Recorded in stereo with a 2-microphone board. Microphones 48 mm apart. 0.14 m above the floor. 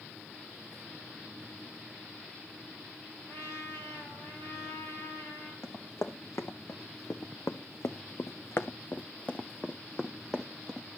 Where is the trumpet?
80° left, 7 m.